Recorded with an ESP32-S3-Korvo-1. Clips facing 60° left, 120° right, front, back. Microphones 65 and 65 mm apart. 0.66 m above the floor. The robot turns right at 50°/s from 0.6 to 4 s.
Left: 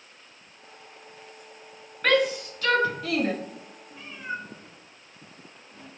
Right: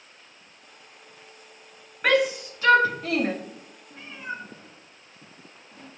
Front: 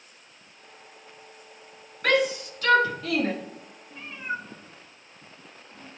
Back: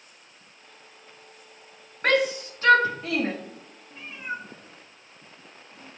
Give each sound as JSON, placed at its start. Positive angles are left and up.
{"t": 2.0, "sound": "a shout", "azimuth_deg": 170, "distance_m": 1.1}
{"t": 3.9, "sound": "a cat meowing", "azimuth_deg": -100, "distance_m": 2.0}